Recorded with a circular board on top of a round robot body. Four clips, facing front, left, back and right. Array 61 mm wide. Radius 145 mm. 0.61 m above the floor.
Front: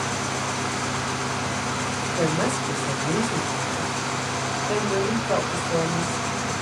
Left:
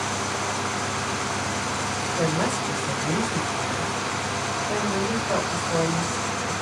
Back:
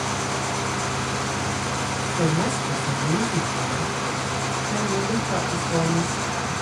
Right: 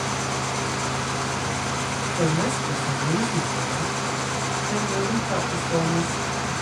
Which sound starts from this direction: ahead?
A woman speaking, at 2.2 s.